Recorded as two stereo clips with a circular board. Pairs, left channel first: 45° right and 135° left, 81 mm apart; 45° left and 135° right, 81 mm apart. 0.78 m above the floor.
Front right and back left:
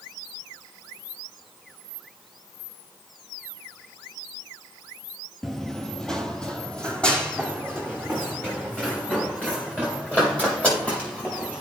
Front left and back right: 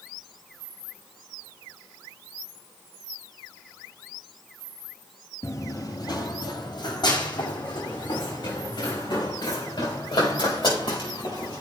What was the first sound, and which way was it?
Running footsteps, 40° left.